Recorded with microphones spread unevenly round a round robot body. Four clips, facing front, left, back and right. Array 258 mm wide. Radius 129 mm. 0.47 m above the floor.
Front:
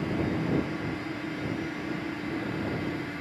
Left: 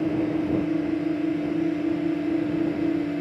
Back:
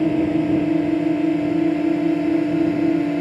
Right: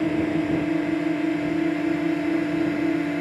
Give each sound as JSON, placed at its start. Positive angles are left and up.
{"t": 0.0, "sound": "a drone", "azimuth_deg": -175}